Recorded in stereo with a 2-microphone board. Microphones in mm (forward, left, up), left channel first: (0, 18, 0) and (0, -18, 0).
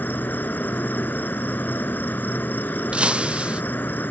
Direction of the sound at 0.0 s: 60° left (ahead or behind).